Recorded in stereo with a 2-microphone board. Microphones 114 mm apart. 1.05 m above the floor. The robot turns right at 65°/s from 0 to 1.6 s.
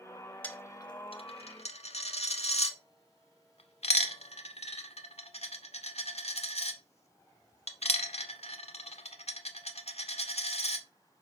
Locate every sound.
0.4 s a dropped coin: 15° left (ahead or behind), 1.2 m; by 10.8 s 65° left (ahead or behind), 1.2 m